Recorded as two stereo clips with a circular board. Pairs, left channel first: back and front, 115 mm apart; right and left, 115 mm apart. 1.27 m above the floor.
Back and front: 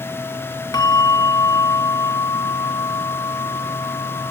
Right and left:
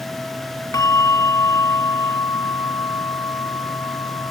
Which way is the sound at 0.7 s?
140° right.